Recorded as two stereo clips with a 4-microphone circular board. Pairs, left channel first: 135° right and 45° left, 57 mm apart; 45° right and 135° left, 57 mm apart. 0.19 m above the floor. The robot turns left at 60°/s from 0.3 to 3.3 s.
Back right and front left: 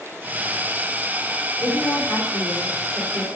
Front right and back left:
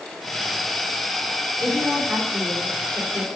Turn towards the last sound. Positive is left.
turn(degrees=160)